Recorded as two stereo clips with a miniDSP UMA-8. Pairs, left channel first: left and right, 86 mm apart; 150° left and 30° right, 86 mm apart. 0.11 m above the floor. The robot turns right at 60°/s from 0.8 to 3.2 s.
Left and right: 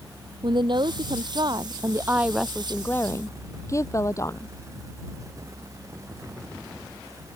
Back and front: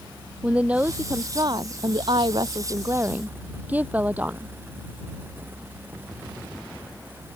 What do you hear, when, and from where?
0.4 s a woman speaking: 105° right; by 4.5 s 40° left